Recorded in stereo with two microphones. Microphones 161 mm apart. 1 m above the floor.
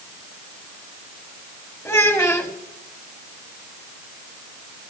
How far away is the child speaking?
About 1.7 m.